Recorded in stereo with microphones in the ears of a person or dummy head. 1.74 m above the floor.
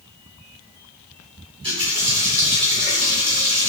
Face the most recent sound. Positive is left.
turn(degrees=-25)  # may be behind; listen again after turning